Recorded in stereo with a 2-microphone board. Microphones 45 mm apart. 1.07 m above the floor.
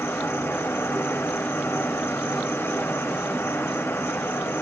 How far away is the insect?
About 1.0 m.